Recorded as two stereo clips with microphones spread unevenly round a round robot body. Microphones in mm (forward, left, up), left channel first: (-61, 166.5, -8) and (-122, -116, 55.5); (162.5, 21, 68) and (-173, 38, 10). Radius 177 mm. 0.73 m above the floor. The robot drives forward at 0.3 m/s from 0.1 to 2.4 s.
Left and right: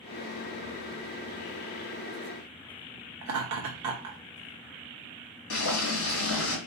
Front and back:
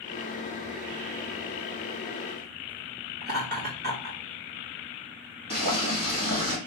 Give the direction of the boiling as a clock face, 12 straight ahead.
8 o'clock.